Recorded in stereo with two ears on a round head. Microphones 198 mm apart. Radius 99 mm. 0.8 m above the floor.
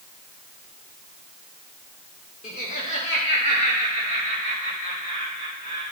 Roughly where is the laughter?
Left.